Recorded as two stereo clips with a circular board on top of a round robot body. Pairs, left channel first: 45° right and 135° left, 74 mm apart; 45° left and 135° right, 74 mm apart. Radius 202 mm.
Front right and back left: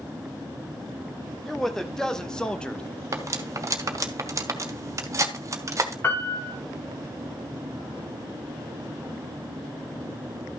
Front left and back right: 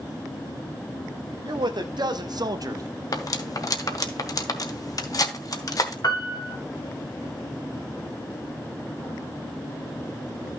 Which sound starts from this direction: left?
Cutlery clinking, at 3.1 s.